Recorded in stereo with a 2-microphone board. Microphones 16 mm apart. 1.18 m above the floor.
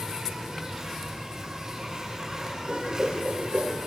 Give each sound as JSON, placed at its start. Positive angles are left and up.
{"t": 0.0, "sound": "an insect", "side_deg": -35, "distance_m": 9.0}
{"t": 2.7, "sound": "a whoosh", "side_deg": -80, "distance_m": 3.5}